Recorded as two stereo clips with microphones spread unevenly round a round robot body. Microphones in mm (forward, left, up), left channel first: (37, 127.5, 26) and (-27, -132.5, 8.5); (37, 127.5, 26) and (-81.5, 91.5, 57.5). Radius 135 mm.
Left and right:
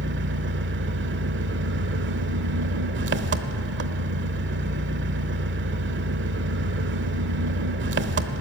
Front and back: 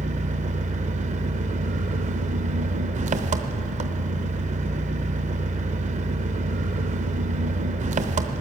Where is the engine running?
135° right, 0.8 m.